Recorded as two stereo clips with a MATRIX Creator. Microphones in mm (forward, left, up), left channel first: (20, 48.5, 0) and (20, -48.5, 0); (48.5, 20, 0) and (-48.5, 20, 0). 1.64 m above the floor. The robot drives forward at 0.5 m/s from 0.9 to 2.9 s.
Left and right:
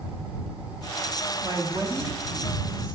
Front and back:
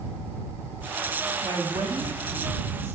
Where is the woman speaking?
135° right, 0.6 m; by 3.0 s 160° right, 1.3 m.